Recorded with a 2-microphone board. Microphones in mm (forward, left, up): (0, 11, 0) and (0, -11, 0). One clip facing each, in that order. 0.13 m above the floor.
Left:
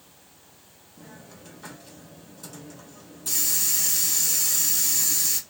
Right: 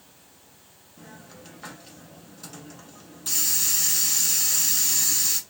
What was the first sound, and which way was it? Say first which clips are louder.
A hiss: right 1 dB; 20° right (ahead or behind).